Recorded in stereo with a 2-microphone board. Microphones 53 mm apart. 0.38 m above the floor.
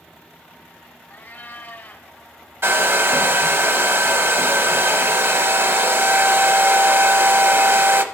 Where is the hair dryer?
50° right (ahead or behind), 0.6 m.